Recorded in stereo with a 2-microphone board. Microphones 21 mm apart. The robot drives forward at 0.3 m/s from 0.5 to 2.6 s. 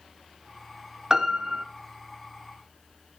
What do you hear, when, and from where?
1.1 s a piano: 30° right (ahead or behind), 1.0 m; by 1.6 s 40° right (ahead or behind), 0.8 m